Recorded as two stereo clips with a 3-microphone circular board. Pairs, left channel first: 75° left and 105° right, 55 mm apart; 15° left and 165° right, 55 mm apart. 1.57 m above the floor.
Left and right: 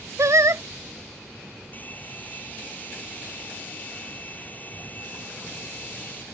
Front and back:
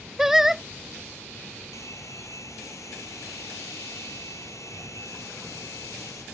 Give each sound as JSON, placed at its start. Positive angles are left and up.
{"t": 0.2, "sound": "singing", "azimuth_deg": -85}
{"t": 1.7, "sound": "a hair dryer", "azimuth_deg": 20}